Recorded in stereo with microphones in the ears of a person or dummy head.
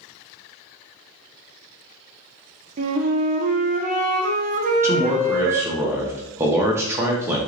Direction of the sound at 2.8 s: 45° right (ahead or behind).